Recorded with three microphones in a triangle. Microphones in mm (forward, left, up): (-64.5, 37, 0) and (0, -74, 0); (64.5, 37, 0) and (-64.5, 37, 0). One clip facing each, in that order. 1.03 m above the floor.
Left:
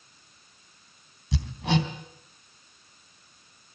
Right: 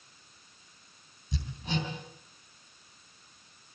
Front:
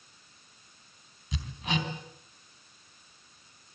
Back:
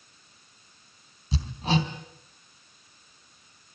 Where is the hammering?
125° left, 3 m.